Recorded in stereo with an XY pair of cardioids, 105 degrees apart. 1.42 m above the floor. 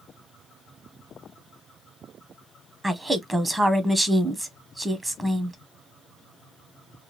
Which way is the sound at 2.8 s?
15° right.